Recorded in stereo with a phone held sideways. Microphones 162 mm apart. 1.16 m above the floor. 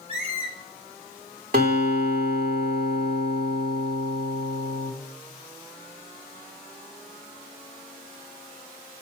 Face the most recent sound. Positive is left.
turn(degrees=-60)  # may be behind; listen again after turning